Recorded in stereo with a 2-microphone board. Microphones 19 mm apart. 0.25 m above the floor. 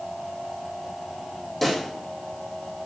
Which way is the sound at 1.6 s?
15° left (ahead or behind).